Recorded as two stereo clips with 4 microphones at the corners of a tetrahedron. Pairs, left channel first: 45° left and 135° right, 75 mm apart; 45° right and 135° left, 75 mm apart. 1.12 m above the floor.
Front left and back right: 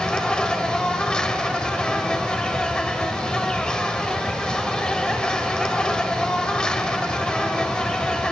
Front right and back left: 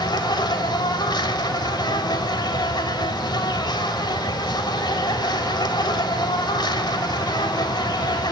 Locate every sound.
0.0 s an insect: 35° right, 2 m